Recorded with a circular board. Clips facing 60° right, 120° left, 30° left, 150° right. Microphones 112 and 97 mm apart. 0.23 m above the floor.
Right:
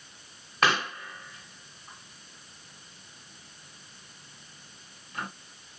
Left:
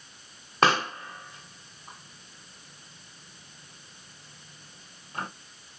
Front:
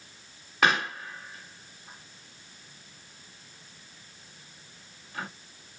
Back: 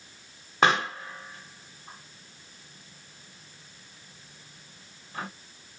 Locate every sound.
0.6 s a pop: 165° left, 1.5 m